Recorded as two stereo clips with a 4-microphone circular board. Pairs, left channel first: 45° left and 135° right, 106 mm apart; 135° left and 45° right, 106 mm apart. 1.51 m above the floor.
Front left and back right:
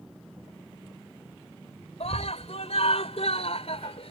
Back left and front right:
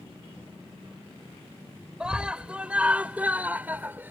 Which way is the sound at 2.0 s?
35° left.